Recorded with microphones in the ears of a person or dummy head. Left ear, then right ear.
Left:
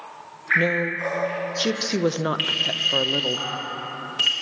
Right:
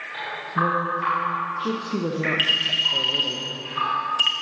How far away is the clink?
About 0.5 m.